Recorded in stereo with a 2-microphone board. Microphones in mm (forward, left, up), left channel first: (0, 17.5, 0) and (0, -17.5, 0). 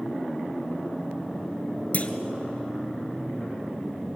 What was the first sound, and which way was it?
A clunk, 45° left (ahead or behind).